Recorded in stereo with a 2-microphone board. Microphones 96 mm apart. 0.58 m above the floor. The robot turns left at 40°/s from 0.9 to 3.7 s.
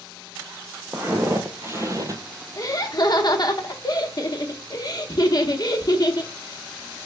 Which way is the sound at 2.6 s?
115° left.